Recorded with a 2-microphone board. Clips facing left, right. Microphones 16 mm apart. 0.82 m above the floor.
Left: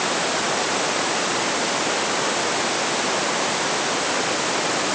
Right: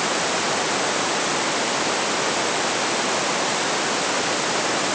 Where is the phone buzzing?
No phone buzzing in this recording.